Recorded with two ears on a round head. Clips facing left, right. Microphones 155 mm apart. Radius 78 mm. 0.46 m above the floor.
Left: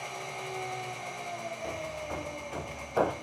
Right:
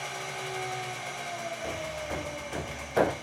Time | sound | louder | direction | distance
0.0 | an engine running | right 1 dB | centre (ahead or behind) | 0.8 m
1.6 | hammering | right 1 dB | 15° right (ahead or behind) | 0.5 m